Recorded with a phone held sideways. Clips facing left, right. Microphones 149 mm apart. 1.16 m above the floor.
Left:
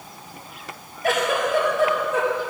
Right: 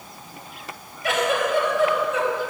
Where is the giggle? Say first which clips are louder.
Even; 50° left (ahead or behind), 3 m.